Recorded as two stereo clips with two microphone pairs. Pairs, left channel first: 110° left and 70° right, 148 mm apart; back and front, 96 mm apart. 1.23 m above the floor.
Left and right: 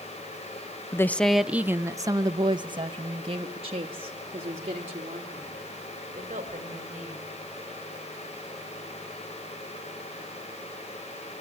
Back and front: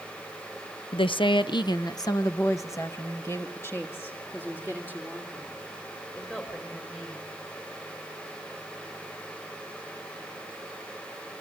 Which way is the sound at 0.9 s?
175° left.